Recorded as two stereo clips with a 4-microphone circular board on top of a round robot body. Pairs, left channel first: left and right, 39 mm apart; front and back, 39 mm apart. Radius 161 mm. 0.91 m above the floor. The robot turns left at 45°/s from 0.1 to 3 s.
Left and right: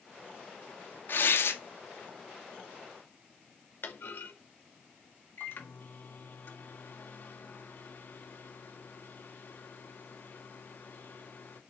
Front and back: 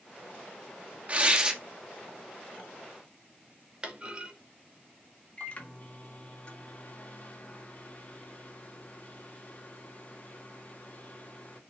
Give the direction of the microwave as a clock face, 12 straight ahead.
10 o'clock.